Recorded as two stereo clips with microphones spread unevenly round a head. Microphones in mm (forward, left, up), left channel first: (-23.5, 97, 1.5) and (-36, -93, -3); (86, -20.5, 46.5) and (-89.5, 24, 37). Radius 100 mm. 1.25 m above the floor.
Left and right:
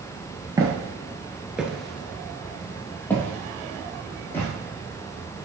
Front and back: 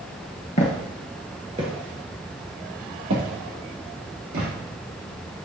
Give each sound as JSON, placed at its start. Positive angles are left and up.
{"t": 0.6, "sound": "footsteps", "azimuth_deg": -30, "distance_m": 1.4}